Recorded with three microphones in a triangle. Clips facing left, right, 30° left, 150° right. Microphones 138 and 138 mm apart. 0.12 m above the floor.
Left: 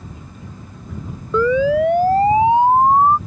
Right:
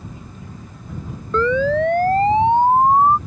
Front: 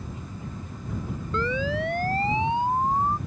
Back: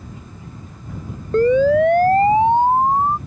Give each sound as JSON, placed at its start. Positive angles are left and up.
{"t": 1.3, "sound": "a siren", "azimuth_deg": 170}